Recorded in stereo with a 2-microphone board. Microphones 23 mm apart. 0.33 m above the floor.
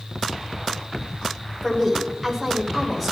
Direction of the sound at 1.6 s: 10° right (ahead or behind).